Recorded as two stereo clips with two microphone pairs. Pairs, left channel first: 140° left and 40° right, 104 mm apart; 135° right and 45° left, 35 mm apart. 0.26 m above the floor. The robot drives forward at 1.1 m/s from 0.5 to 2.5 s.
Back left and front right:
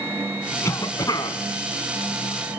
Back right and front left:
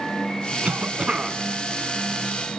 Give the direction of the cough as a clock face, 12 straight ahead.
9 o'clock.